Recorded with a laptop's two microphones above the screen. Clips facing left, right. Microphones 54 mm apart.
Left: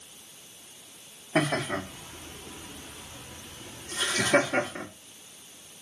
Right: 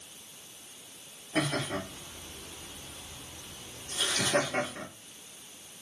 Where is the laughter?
45° left (ahead or behind), 2 m; by 4.8 s 70° left (ahead or behind), 2.5 m.